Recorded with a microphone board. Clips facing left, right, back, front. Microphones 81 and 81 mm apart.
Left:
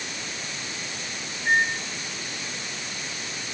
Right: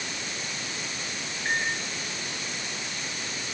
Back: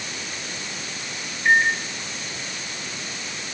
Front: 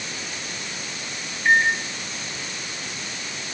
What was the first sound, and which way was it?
A microwave, 90° right.